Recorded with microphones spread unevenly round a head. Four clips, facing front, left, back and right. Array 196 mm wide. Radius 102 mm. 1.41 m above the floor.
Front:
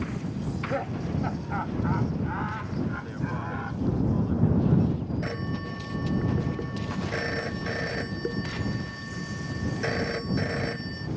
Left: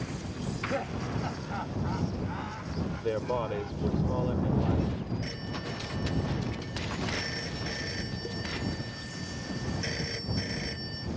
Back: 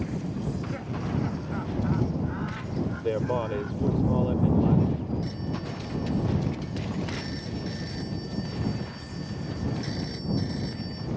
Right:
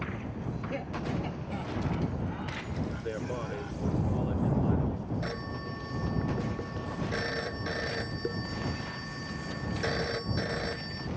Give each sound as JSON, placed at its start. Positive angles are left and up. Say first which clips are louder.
{"t": 0.4, "sound": "laughter", "louder": "left 5 dB, front 3 dB", "azimuth_deg": 20}
{"t": 3.0, "sound": "a man speaking", "louder": "left 5 dB, back 6 dB", "azimuth_deg": 160}
{"t": 5.2, "sound": "a phone ringing", "louder": "right 1 dB, front 1 dB", "azimuth_deg": -25}